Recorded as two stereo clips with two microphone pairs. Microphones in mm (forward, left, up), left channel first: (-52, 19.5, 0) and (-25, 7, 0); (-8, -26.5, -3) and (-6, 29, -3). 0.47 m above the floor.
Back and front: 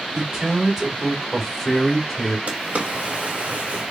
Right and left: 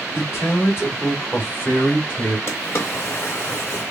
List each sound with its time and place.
0.1 s a man speaking: 70° right, 1.3 m; by 2.4 s 170° right, 1.2 m
2.5 s a drawer: 50° right, 1.0 m